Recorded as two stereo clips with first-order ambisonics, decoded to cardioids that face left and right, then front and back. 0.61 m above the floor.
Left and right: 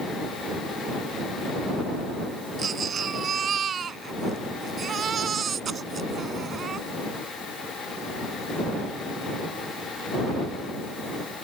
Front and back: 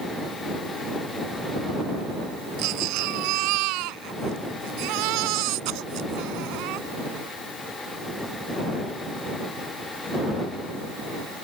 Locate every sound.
2.6 s a baby crying: 155° right